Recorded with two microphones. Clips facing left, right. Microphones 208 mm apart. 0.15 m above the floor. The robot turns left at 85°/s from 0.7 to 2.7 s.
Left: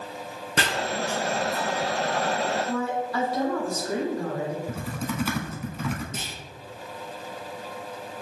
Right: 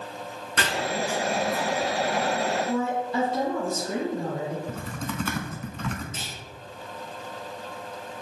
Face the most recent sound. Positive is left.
turn(degrees=55)  # may be behind; listen again after turning